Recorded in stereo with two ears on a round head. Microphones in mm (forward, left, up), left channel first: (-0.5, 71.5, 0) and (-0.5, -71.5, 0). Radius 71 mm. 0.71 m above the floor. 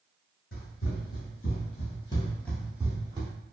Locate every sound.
0.5 s running footsteps: 65° left (ahead or behind), 1.6 m; by 3.3 s 30° right (ahead or behind), 1.0 m